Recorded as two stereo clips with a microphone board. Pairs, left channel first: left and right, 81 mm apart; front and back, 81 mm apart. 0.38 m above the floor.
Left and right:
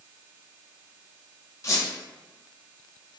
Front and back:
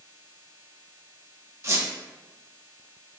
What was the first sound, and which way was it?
A squeak, 135° left.